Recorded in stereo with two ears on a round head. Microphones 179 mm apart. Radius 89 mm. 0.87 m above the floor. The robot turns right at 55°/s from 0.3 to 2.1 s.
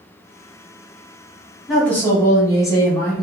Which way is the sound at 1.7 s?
Centre (ahead or behind).